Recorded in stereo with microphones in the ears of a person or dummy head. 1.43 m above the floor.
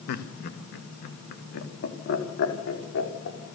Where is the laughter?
55° left (ahead or behind), 1.9 m; by 3.4 s 65° left (ahead or behind), 4.5 m.